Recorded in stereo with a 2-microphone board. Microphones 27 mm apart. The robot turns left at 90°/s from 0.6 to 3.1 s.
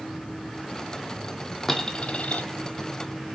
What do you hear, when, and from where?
1.7 s a dropped coin: 170° left, 0.8 m; by 2.5 s 100° left, 0.8 m